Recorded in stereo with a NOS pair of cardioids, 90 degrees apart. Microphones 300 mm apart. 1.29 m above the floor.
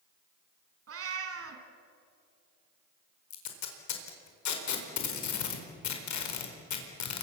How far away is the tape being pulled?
About 4.5 m.